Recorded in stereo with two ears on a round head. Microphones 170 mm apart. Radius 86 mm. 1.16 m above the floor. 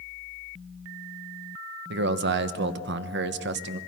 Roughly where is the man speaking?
Right.